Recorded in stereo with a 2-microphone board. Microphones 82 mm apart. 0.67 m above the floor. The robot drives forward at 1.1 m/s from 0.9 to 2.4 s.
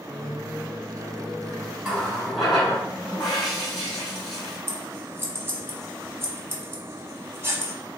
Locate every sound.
0.1 s a microwave: 10° left (ahead or behind), 1.5 m; by 1.7 s 25° left (ahead or behind), 0.7 m
1.8 s a running tap: centre (ahead or behind), 1.8 m
4.7 s scissors: 30° right (ahead or behind), 0.7 m